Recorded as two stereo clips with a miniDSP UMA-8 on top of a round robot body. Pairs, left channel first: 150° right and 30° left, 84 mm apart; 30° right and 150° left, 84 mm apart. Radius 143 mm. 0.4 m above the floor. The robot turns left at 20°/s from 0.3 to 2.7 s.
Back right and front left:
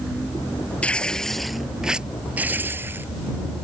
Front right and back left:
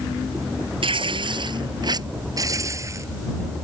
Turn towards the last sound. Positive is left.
turn(degrees=95)